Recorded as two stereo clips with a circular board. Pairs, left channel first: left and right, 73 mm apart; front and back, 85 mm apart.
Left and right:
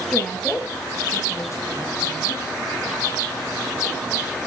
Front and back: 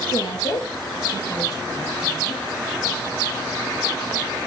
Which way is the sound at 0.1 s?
5° left.